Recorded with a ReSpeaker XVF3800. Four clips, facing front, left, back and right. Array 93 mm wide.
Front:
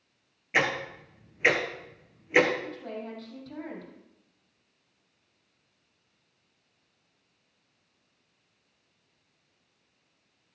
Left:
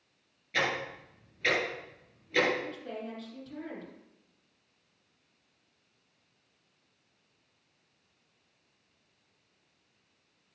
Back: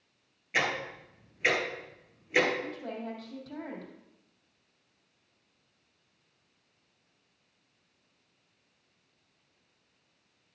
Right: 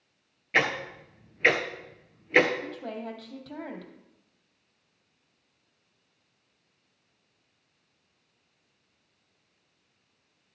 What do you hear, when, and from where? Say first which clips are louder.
0.5 s ticking: right 5 dB, front 3 dB; 60° right, 1.5 m
2.6 s a woman speaking: right 3 dB, even; 95° right, 3.5 m